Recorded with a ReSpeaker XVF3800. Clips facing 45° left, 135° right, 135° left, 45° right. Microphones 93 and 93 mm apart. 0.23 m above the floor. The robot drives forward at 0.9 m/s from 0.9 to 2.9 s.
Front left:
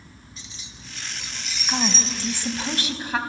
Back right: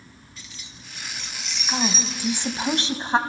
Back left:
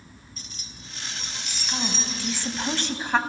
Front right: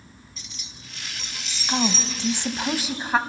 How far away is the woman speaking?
About 1.5 m.